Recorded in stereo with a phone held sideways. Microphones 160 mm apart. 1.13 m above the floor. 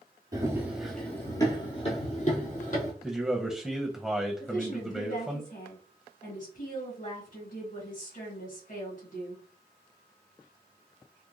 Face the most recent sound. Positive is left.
turn(degrees=55)  # may be behind; listen again after turning